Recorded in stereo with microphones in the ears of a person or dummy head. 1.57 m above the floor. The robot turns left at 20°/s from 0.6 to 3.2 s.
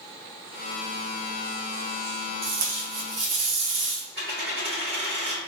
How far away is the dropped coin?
About 1.8 m.